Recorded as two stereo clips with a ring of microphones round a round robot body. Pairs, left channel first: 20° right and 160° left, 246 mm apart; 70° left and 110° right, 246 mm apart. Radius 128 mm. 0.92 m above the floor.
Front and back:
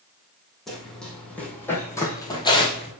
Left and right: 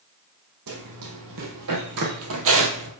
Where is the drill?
I don't hear a drill.